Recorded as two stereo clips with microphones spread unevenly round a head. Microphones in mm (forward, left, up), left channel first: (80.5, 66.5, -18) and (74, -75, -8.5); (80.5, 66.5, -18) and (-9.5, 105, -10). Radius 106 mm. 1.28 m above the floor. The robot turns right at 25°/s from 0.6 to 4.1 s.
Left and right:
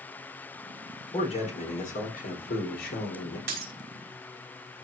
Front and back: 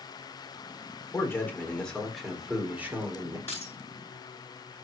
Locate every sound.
1.1 s a man speaking: 40° left, 4 m; by 3.4 s 95° left, 4 m
3.5 s breaking glass: 105° right, 5 m; by 3.7 s 100° right, 5 m